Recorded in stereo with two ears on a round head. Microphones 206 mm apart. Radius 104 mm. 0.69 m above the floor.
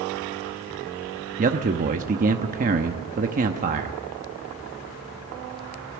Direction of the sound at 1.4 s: 35° right (ahead or behind).